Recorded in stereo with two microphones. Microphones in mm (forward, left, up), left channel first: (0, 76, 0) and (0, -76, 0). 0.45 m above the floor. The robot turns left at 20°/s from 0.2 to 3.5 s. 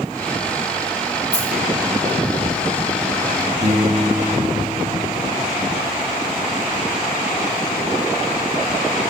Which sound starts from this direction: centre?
A dropped coin, at 1.3 s.